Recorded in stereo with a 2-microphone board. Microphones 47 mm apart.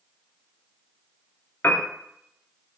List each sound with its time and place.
1.6 s a piano: 45° left (ahead or behind), 0.5 m